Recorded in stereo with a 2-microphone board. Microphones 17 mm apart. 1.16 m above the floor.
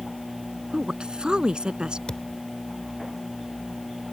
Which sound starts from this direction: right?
A woman speaking, at 0.7 s.